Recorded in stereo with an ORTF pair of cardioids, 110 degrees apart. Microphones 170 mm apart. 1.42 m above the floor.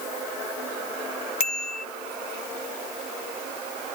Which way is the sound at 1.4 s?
60° left.